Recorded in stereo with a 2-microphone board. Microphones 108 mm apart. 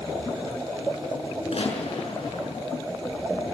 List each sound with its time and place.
1.5 s a gunshot: 70° left (ahead or behind), 7 m